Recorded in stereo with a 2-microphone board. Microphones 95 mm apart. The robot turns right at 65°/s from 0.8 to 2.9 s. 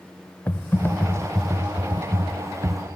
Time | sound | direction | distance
0.5 | typing on a keyboard | 140° left | 0.7 m